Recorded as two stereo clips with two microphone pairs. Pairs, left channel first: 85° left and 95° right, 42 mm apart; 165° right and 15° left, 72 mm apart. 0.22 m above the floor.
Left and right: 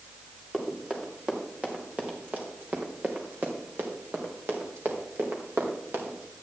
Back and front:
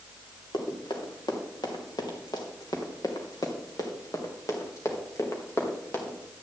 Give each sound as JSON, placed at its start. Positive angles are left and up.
{"t": 0.5, "sound": "running footsteps", "azimuth_deg": -160, "distance_m": 4.0}